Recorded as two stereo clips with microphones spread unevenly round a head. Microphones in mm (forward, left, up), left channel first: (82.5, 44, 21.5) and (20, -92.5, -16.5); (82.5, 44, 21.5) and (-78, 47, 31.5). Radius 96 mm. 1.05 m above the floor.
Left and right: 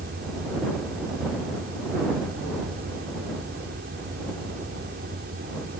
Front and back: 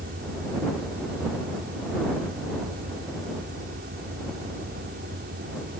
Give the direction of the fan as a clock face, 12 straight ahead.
5 o'clock.